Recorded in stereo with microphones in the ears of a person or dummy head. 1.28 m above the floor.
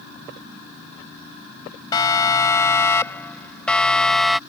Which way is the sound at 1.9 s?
25° left (ahead or behind).